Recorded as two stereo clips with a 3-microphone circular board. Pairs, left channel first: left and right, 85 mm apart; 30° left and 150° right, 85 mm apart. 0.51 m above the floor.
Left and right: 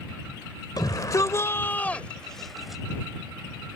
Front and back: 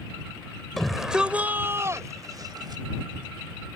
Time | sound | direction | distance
0.8 | a shout | 115° left | ?